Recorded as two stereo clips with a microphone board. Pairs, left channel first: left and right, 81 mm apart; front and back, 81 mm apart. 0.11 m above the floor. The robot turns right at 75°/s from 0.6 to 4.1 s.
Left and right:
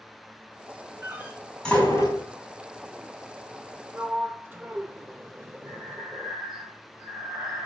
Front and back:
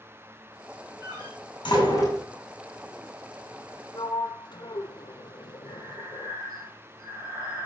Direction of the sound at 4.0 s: 35° right.